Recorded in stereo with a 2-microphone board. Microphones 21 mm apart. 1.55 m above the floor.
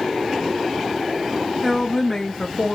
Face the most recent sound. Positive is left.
turn(degrees=55)  # may be behind; listen again after turning